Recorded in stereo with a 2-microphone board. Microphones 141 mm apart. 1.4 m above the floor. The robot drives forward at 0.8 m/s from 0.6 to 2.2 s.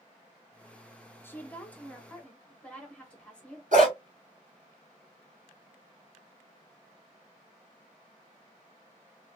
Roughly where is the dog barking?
Right.